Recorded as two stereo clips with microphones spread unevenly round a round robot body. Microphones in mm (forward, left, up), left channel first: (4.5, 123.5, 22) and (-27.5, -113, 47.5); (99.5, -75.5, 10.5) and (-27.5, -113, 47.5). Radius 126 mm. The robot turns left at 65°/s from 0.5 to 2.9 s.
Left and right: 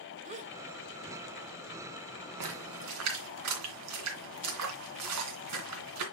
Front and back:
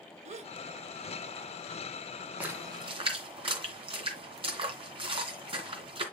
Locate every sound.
0.2 s a gasp: 155° right, 1.0 m
2.4 s a splash: 90° right, 2.5 m; by 6.0 s 120° right, 2.5 m